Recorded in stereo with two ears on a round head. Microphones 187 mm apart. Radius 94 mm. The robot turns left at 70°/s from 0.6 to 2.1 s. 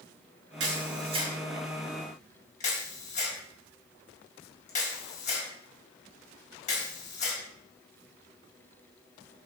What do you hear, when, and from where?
0.6 s a camera shutter: 65° right (ahead or behind), 4.5 m; by 7.4 s 35° left (ahead or behind), 4.5 m